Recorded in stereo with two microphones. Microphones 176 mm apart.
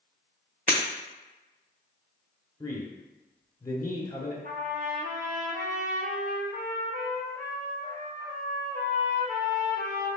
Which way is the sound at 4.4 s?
55° right (ahead or behind).